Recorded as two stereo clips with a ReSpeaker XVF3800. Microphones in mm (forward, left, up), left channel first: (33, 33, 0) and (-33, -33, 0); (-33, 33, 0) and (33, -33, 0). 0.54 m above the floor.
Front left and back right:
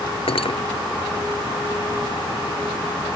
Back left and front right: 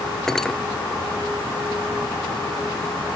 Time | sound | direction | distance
0.3 | cutlery clinking | 50° left | ?